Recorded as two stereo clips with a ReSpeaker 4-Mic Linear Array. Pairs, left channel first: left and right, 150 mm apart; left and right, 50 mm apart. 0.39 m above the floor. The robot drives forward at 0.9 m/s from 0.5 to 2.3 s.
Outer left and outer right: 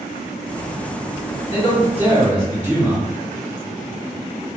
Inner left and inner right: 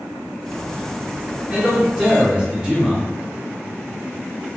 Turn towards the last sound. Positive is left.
turn(degrees=-15)  # may be behind; listen again after turning